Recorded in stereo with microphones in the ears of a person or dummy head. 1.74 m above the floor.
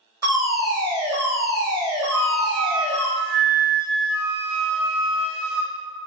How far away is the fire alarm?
About 1.5 m.